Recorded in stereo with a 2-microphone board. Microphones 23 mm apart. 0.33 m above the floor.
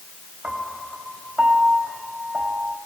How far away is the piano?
About 2 m.